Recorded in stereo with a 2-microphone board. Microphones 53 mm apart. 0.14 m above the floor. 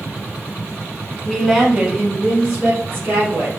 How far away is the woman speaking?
About 1.1 m.